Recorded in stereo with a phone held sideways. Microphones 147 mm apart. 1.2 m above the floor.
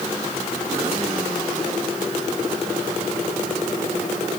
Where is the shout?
I don't hear a shout.